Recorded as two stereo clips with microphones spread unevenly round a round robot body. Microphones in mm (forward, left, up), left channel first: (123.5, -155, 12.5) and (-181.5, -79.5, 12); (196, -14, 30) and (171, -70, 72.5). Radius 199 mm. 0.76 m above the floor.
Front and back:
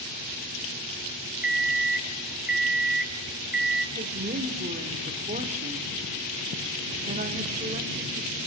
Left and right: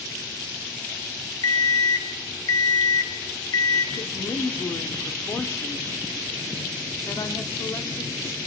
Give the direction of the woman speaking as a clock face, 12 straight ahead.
9 o'clock.